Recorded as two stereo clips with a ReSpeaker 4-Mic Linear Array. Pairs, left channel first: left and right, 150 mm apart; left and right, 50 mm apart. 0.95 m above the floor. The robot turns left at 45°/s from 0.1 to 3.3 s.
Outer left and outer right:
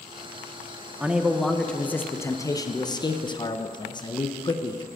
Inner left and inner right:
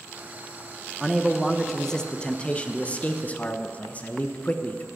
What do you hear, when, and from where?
1.0 s a man speaking: 10° right (ahead or behind), 0.6 m; by 4.9 s 30° left (ahead or behind), 0.6 m